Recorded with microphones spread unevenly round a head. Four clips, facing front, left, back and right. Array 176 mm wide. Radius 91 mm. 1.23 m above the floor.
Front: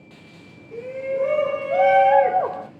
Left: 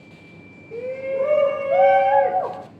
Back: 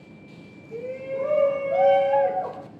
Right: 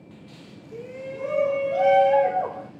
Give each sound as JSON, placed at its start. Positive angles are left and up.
{"t": 0.7, "sound": "a shout", "azimuth_deg": 70, "distance_m": 2.0}